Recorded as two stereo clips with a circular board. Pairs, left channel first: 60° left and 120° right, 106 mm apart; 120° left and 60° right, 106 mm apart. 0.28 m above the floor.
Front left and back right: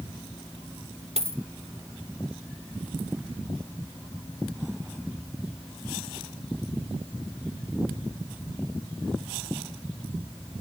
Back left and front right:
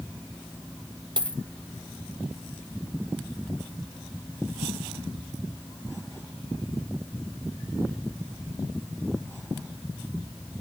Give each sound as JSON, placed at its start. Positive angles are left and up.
{"t": 1.2, "sound": "a dropped coin", "azimuth_deg": -105, "distance_m": 1.0}